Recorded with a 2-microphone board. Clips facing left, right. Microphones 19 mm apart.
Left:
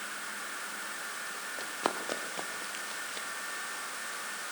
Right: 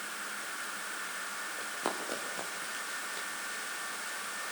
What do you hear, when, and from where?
1.6 s running footsteps: 30° left (ahead or behind), 3.5 m; by 3.3 s 15° left (ahead or behind), 2.5 m